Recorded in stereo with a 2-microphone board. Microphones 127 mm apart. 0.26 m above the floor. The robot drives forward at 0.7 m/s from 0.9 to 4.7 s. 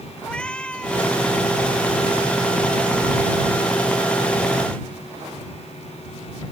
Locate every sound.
0.2 s a cat meowing: 5° left (ahead or behind)